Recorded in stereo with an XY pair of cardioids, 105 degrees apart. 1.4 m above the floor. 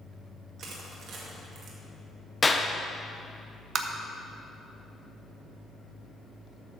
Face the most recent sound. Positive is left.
turn(degrees=-55)